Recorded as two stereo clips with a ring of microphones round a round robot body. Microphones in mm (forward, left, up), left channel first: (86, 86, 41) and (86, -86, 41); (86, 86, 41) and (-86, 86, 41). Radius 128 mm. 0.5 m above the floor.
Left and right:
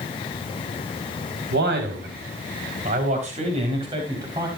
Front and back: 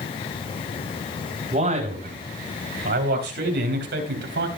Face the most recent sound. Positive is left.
turn(degrees=-165)